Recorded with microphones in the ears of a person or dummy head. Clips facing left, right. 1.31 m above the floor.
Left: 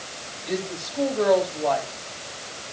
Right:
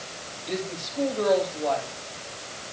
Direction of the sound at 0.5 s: 20° left (ahead or behind).